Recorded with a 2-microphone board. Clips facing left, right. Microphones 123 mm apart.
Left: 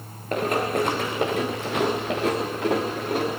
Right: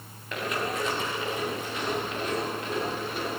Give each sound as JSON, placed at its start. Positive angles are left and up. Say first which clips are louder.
{"t": 0.3, "sound": "running footsteps", "louder": "left 7 dB", "side_deg": 45, "distance_m": 3.5}